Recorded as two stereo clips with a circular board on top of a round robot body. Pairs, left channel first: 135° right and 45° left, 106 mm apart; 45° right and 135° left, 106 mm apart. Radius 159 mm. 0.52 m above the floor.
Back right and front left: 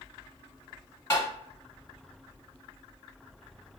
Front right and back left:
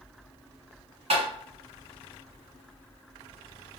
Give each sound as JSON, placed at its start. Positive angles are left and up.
{"t": 1.1, "sound": "tapping", "azimuth_deg": 160, "distance_m": 1.7}